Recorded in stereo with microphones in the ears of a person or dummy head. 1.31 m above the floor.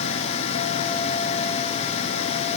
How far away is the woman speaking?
No woman speaking in this recording.